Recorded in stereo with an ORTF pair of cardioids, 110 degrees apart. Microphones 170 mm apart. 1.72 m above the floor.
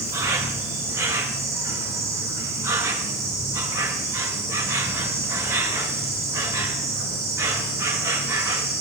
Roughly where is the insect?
Ahead.